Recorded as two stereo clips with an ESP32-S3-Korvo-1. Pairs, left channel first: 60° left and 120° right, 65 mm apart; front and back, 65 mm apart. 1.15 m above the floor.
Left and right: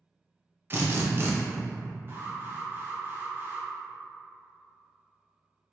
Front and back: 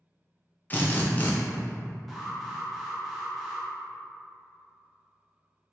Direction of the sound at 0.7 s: 65° right.